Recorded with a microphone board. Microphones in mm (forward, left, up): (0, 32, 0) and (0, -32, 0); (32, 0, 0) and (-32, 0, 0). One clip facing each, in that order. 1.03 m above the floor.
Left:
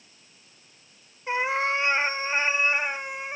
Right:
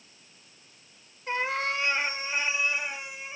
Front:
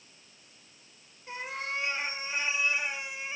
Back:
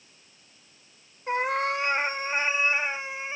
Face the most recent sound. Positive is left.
turn(degrees=120)